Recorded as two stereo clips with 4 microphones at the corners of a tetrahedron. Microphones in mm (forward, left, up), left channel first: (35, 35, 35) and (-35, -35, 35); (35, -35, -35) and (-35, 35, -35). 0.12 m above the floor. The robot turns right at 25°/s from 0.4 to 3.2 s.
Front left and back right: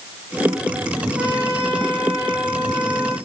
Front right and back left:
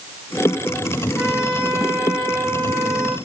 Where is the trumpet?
150° right, 7.5 m; by 3.2 s 100° right, 7.5 m.